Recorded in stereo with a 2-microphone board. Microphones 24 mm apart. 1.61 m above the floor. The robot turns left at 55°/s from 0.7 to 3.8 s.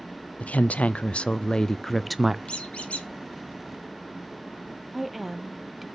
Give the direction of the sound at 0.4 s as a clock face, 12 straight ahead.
9 o'clock.